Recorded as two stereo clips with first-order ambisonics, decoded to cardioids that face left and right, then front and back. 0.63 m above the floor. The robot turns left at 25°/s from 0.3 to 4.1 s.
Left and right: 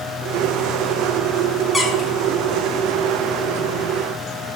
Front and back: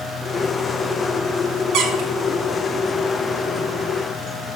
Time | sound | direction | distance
1.7 | a squeak | straight behind | 0.8 m